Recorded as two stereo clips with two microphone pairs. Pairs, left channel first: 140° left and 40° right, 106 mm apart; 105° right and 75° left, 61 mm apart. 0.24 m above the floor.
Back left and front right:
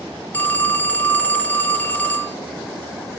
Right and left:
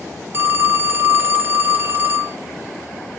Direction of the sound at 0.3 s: 80° left.